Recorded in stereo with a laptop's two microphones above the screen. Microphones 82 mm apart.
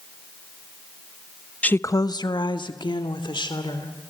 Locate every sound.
1.6 s a woman speaking: 15° left (ahead or behind), 0.6 m; by 4.1 s 85° left, 3.5 m